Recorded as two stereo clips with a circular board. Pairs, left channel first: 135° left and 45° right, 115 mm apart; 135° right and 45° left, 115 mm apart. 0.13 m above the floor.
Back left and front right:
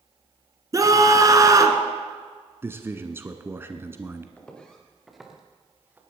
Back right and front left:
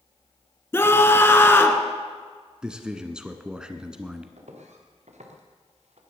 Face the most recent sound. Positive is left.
turn(degrees=25)